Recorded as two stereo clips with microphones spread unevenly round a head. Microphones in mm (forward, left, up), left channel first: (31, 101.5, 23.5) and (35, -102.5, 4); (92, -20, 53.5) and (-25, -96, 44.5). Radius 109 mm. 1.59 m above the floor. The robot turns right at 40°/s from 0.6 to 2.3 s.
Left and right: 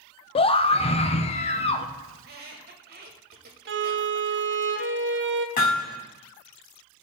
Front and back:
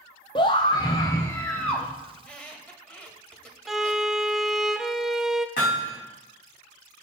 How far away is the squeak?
About 1.7 m.